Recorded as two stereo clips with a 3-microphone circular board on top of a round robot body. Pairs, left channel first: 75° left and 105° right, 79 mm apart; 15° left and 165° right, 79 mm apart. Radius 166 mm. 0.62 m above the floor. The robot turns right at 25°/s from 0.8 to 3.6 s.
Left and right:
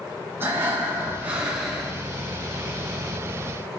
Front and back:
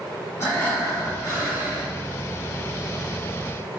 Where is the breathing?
45° right, 3.5 m; by 1.9 s 15° right, 3.5 m.